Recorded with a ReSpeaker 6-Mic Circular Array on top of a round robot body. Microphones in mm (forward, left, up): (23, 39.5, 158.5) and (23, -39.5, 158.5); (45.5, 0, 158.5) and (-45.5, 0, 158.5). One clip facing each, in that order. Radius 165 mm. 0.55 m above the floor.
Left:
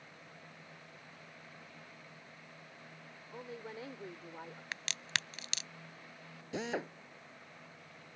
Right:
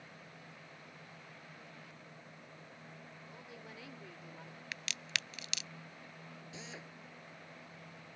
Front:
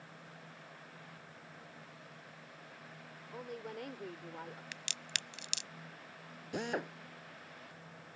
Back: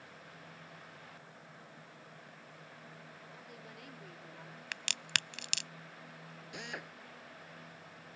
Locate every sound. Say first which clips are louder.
3.3 s a woman speaking: left 9 dB, front 13 dB; 35° left
4.7 s a crack: left 2 dB, back 5 dB; 145° left
6.5 s a drill: left 15 dB, front 9 dB; 55° left